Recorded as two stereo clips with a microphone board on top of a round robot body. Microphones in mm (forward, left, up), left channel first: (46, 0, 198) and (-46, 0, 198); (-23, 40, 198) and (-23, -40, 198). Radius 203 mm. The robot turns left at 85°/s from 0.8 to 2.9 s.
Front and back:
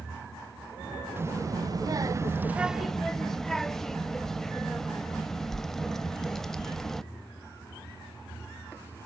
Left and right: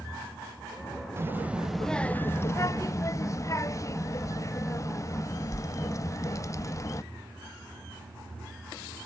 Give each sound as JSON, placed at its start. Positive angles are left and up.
{"t": 1.2, "sound": "a child speaking", "azimuth_deg": -130, "distance_m": 0.9}